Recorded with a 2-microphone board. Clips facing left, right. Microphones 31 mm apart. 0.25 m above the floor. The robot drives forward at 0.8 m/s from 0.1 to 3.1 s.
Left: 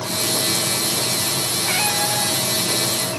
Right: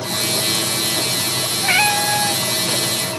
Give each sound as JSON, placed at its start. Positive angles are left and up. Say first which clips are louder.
{"t": 1.6, "sound": "a cat meowing", "louder": "right 7 dB", "side_deg": -35}